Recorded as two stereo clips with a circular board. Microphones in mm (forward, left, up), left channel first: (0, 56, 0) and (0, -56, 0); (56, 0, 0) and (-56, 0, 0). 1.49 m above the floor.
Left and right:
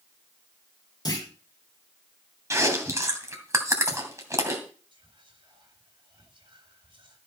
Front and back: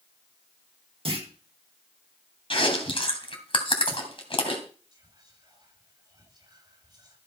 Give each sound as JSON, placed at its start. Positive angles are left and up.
{"t": 1.1, "sound": "a clunk", "azimuth_deg": 145, "distance_m": 2.0}
{"t": 2.5, "sound": "chewing", "azimuth_deg": -30, "distance_m": 2.5}
{"t": 4.9, "sound": "whispering", "azimuth_deg": -130, "distance_m": 4.0}